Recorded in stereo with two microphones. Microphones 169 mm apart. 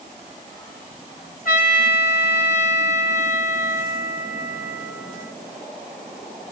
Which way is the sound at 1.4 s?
60° left (ahead or behind).